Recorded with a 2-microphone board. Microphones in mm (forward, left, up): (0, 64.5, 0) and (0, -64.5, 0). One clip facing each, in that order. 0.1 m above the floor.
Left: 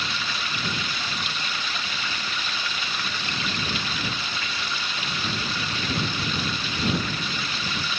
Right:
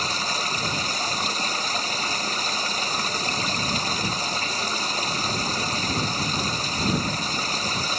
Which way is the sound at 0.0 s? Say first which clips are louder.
Right 3 dB; 40° right (ahead or behind).